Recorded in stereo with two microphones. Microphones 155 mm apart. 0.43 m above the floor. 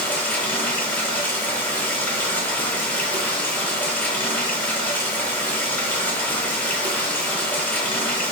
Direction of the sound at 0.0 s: 10° left (ahead or behind).